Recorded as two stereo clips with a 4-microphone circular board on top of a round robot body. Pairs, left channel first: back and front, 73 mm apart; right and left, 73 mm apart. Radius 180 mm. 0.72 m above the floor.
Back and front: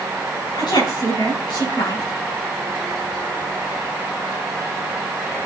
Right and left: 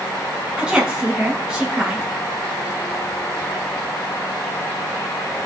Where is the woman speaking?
170° left, 6 m.